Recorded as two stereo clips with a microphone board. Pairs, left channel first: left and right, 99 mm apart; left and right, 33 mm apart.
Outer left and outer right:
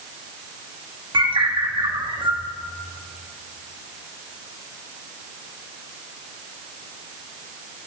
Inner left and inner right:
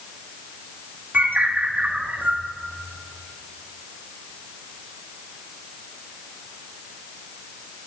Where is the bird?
60° right (ahead or behind), 1.4 m.